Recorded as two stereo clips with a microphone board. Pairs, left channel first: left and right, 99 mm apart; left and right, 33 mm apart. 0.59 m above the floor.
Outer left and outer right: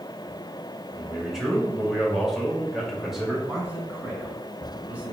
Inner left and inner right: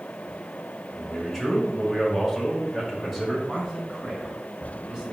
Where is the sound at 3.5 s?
15° right (ahead or behind), 4 m.